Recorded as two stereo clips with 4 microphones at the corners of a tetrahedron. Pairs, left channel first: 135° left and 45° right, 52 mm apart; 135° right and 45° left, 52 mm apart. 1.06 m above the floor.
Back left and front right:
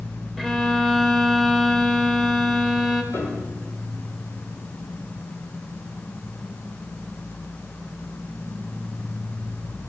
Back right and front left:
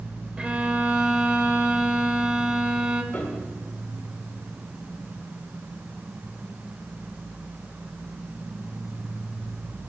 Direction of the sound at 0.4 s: 50° left.